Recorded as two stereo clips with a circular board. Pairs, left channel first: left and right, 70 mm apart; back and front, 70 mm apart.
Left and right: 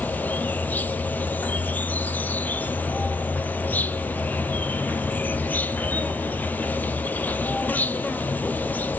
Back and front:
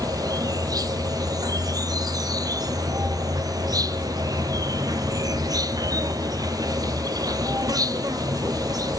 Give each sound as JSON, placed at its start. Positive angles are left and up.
{"t": 0.0, "sound": "an insect", "azimuth_deg": 25, "distance_m": 0.8}